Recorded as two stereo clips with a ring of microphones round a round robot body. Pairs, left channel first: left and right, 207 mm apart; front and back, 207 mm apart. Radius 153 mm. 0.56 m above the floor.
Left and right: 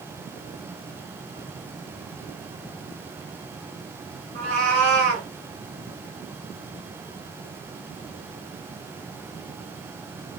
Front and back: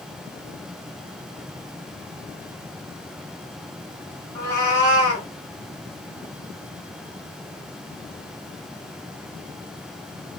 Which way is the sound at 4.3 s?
75° right.